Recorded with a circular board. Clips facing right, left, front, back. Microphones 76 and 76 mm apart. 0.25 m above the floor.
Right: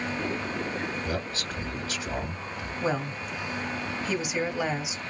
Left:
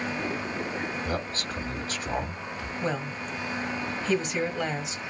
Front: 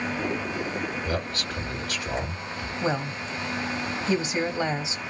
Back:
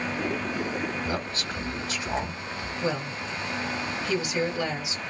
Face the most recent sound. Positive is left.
turn(degrees=-15)